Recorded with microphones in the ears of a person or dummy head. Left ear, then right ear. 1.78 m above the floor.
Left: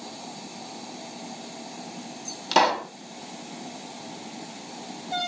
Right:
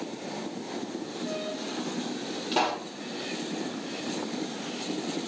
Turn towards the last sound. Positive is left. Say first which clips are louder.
# left 7 dB
turn(degrees=60)  # may be behind; listen again after turning